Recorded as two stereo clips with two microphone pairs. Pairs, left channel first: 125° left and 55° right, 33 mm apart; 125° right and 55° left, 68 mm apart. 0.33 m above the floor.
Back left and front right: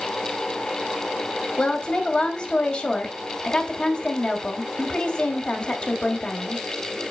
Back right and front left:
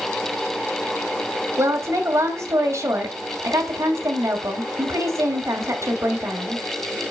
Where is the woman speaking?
80° left, 2 m.